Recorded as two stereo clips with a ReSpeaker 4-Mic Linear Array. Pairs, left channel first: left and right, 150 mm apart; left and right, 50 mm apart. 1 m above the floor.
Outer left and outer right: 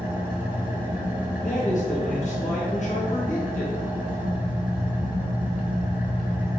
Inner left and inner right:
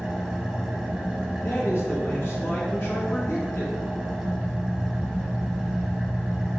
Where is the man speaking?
55° left (ahead or behind), 1.4 m.